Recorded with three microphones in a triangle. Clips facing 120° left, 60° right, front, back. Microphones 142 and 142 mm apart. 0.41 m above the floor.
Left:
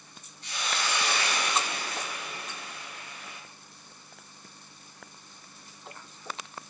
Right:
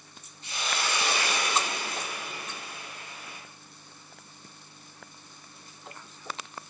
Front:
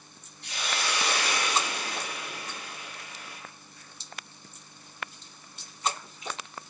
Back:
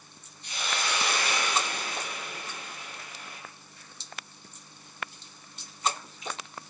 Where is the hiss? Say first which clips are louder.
Even, even; 5° left, 5 m.